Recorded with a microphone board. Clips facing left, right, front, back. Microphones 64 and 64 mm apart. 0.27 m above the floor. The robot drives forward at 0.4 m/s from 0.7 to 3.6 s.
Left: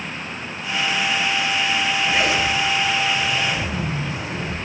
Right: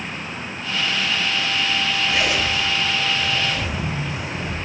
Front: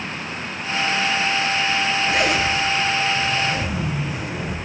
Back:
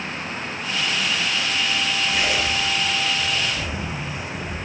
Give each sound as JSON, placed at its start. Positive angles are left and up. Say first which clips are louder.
{"t": 2.1, "sound": "a zipper", "louder": "left 2 dB, front 4 dB", "azimuth_deg": 25, "distance_m": 5.0}